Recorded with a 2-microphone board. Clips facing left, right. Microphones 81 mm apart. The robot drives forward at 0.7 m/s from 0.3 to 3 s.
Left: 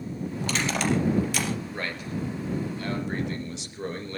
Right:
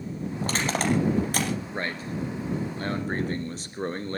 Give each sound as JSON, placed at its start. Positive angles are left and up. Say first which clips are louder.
{"t": 0.4, "sound": "crushing", "louder": "right 1 dB", "side_deg": -40, "distance_m": 4.5}
{"t": 1.7, "sound": "a man speaking", "louder": "right 1 dB", "side_deg": -30, "distance_m": 3.0}